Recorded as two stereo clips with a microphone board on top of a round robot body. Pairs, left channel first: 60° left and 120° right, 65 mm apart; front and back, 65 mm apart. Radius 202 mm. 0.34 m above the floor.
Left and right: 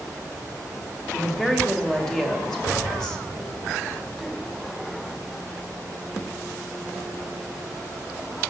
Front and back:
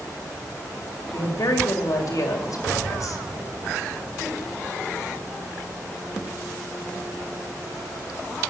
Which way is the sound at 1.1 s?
20° right.